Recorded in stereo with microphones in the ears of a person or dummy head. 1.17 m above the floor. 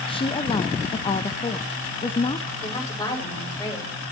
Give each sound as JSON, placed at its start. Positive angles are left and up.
{"t": 0.1, "sound": "a woman speaking", "side_deg": 25, "distance_m": 0.7}
{"t": 2.6, "sound": "a woman speaking", "side_deg": 20, "distance_m": 6.0}